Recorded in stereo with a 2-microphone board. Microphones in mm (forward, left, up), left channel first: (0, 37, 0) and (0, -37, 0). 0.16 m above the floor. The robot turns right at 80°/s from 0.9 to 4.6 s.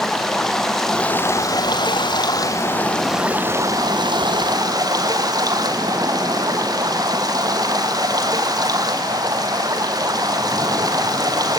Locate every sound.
0.0 s running water: 5° left, 3.5 m; by 11.6 s 60° right, 3.5 m